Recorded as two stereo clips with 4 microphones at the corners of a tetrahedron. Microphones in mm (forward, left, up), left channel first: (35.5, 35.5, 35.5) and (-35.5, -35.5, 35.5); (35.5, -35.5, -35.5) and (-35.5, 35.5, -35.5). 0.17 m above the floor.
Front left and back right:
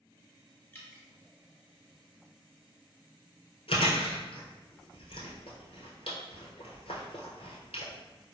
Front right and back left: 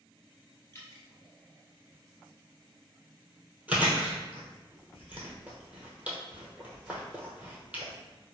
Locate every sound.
0.7 s dripping: 10° right, 1.3 m
3.7 s chewing: 60° left, 1.0 m